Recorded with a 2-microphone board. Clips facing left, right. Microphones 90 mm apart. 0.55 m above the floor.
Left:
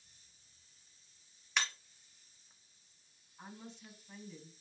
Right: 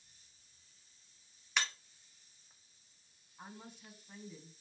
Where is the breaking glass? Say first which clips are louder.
Even; centre (ahead or behind), 1.2 m.